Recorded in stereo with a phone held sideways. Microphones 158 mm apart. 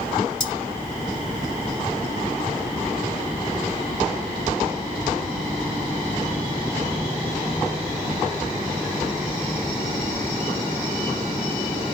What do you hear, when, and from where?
0.4 s cutlery clinking: 40° left (ahead or behind), 2.5 m